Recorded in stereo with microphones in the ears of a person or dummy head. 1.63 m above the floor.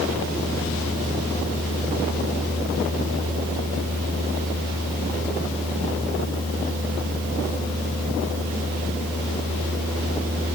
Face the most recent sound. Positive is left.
No sound to turn to.